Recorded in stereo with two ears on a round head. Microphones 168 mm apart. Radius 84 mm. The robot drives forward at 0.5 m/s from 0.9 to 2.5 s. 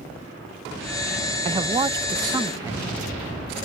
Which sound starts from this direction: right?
A man speaking, at 1.4 s.